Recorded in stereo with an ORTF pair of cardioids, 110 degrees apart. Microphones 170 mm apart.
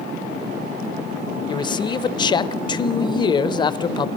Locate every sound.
1.5 s a man speaking: 25° left, 0.5 m